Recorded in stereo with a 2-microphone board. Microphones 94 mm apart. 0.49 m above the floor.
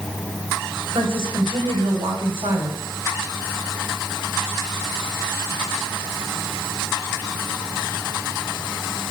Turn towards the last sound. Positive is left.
turn(degrees=-65)  # may be behind; listen again after turning